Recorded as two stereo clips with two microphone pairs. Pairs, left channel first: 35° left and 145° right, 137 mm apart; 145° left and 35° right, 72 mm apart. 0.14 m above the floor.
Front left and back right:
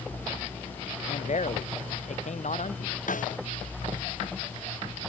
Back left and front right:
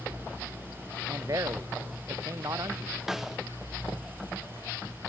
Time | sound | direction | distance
1.1 | a man speaking | 5° left | ?
3.1 | a snare drum | 50° left | ?